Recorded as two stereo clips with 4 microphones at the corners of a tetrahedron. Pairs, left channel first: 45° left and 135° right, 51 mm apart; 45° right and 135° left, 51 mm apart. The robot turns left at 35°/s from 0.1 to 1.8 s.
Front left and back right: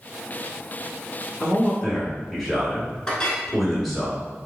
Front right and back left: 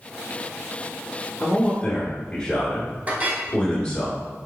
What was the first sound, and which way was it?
A man speaking, 35° right.